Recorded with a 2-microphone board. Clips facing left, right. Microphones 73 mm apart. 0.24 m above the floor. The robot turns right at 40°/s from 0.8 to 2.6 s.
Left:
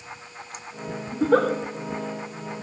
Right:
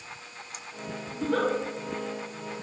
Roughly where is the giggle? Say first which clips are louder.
Left 7 dB; left.